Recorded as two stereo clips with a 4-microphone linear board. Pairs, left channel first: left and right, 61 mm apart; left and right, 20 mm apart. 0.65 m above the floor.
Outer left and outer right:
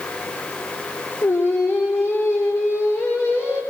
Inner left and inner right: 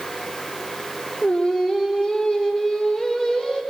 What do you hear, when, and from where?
1.2 s singing: 40° left (ahead or behind), 5.5 m